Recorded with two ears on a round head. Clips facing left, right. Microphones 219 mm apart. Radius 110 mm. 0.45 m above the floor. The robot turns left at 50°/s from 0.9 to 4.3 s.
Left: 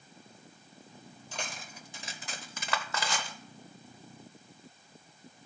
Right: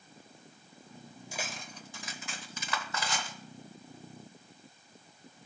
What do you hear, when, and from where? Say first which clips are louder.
1.3 s cutlery clinking: right 1 dB; 10° right (ahead or behind), 0.8 m; by 3.4 s 70° left (ahead or behind), 0.8 m